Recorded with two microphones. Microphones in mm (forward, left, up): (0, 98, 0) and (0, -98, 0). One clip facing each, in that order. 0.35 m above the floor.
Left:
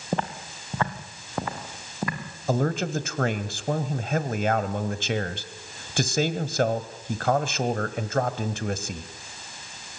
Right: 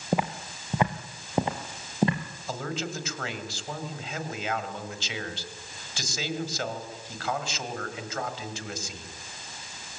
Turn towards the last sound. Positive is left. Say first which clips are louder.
# left 9 dB
turn(degrees=55)  # may be behind; listen again after turning